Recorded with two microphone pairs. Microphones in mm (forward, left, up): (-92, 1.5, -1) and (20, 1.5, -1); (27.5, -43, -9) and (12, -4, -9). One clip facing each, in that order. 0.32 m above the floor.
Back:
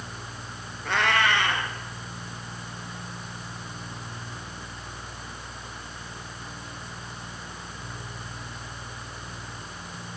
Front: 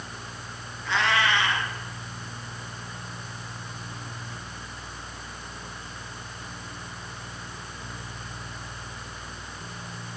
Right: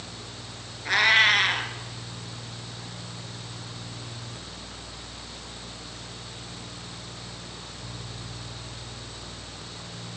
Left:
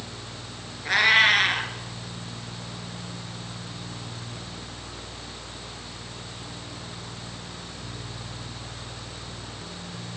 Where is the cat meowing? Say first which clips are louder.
Back 1 dB, left 1 dB; 160° right, 1.1 m.